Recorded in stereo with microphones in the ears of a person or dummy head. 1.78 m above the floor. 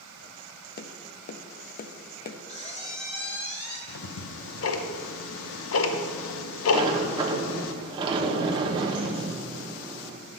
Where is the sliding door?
30° right (ahead or behind), 1.0 m.